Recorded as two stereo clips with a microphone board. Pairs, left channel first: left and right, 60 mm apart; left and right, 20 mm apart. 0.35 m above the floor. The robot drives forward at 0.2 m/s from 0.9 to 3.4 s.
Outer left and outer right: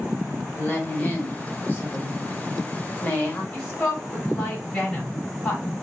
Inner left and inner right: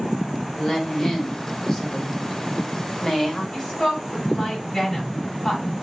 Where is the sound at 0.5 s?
30° left (ahead or behind), 1.0 m.